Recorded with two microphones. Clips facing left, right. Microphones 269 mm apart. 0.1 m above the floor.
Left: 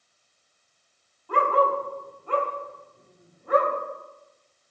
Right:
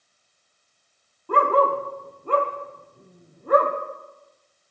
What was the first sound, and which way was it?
A dog barking, 55° right (ahead or behind).